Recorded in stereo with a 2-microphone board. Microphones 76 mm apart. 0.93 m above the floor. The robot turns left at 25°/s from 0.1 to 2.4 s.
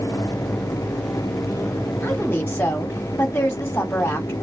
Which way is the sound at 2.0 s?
25° left (ahead or behind).